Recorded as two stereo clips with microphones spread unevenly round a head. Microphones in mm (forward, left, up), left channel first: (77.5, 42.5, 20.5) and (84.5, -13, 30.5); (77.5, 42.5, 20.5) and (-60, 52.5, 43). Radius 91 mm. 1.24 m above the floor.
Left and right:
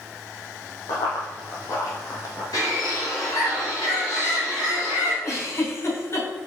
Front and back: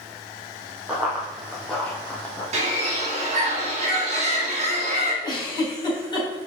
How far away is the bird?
About 2 m.